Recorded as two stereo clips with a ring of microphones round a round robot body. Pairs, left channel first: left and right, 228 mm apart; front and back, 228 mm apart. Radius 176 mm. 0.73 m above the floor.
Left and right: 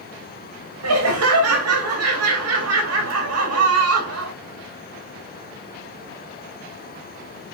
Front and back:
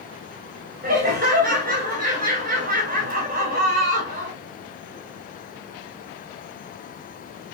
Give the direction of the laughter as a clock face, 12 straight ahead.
4 o'clock.